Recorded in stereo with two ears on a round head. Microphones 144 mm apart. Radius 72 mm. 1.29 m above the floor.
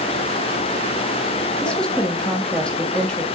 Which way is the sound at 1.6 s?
5° left (ahead or behind).